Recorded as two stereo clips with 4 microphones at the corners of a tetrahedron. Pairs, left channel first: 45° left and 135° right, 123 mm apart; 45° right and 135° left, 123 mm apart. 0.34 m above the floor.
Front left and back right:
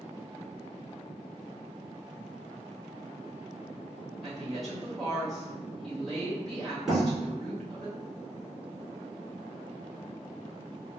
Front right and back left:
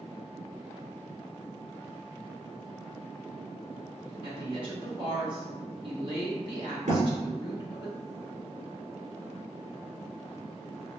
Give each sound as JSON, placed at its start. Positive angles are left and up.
{"t": 4.2, "sound": "a woman speaking", "azimuth_deg": 135, "distance_m": 1.8}
{"t": 6.9, "sound": "a thud", "azimuth_deg": 135, "distance_m": 1.7}